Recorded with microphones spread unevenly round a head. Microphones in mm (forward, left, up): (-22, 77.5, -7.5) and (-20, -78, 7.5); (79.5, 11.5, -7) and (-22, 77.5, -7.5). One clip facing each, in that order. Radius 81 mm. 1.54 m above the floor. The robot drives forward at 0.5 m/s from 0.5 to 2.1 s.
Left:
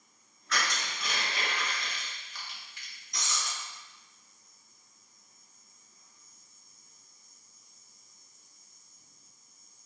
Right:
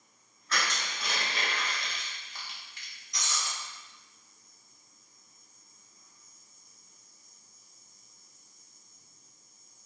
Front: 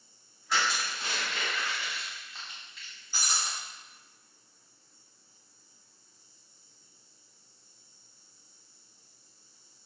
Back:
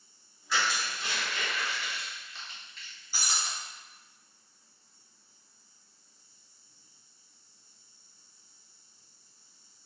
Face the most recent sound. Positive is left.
turn(degrees=70)